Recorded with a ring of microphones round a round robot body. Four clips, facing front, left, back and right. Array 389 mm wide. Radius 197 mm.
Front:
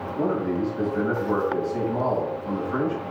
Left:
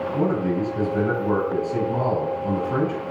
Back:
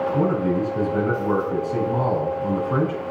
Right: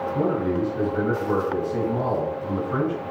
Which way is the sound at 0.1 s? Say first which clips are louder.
Left 1 dB, even; 170° left.